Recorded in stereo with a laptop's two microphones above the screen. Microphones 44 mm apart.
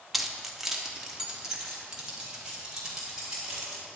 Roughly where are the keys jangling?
Centre.